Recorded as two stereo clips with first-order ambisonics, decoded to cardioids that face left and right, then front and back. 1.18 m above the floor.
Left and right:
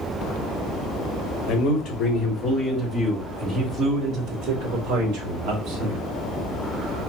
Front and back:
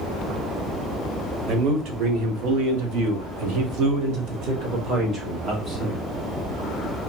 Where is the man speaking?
140° left, 1.4 m; by 6.0 s 120° right, 1.9 m.